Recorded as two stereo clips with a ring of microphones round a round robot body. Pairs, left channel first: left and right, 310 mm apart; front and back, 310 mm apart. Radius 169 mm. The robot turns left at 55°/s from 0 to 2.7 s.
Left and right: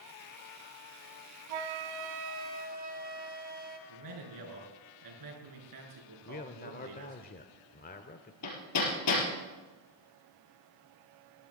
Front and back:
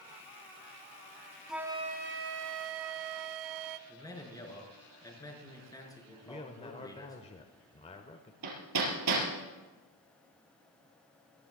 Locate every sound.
1.5 s a flute: 90° right, 0.9 m; by 3.8 s 155° right, 0.9 m
3.9 s a man speaking: 80° right, 6 m
6.2 s a man speaking: 55° left, 1.0 m
8.4 s hammering: 135° left, 4.5 m